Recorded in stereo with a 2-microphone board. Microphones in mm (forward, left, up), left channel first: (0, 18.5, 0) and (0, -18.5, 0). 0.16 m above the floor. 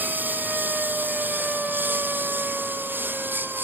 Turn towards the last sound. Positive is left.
turn(degrees=-65)  # may be behind; listen again after turning